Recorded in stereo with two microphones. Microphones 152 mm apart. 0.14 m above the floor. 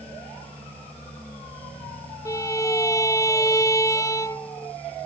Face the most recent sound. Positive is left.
turn(degrees=20)  # may be behind; listen again after turning